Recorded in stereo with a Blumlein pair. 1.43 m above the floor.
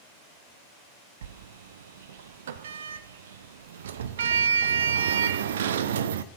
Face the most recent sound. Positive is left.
turn(degrees=-60)